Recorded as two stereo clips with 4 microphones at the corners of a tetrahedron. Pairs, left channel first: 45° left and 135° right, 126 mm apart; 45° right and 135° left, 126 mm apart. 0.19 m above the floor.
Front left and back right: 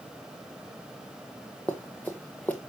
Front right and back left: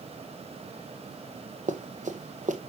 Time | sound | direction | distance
1.7 | running footsteps | 125° left | 1.5 m